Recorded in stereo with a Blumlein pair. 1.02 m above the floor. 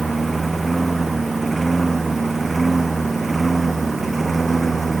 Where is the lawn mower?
10° right.